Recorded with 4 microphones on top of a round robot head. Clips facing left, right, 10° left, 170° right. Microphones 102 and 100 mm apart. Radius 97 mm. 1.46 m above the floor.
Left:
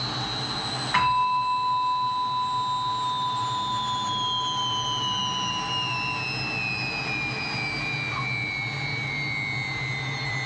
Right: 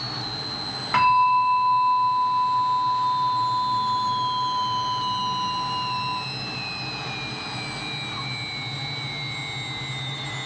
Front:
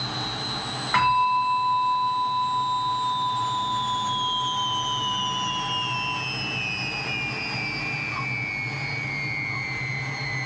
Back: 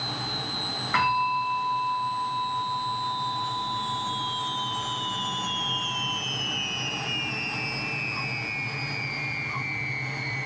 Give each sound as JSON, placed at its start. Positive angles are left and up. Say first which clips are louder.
{"t": 0.9, "sound": "a bell", "louder": "right 5 dB, front 4 dB", "azimuth_deg": -75, "distance_m": 2.0}